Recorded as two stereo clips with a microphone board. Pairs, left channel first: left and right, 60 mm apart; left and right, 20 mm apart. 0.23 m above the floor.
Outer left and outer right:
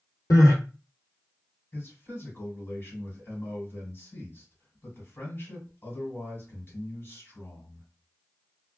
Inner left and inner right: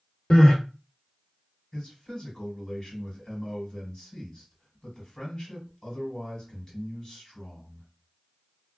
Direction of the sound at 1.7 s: 40° left (ahead or behind).